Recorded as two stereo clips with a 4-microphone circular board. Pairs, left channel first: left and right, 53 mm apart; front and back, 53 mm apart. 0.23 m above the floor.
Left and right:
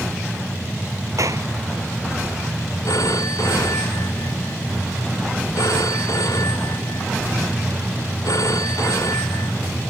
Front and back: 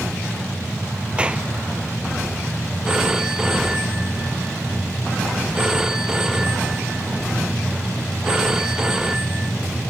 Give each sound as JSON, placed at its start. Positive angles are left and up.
{"t": 1.2, "sound": "a clap", "azimuth_deg": -110}
{"t": 2.9, "sound": "a phone ringing", "azimuth_deg": 100}